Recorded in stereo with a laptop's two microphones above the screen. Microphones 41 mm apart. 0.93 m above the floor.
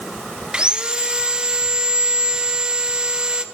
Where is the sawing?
20° right (ahead or behind), 0.6 m.